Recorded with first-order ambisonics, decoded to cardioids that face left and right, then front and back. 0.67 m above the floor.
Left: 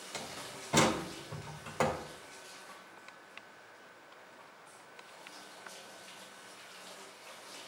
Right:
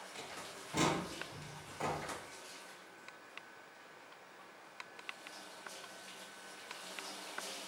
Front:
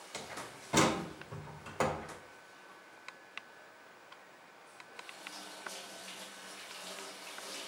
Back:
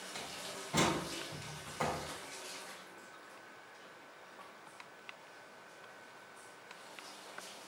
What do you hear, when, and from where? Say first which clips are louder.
0.1 s a door slam: left 6 dB, front 2 dB; 55° left, 2 m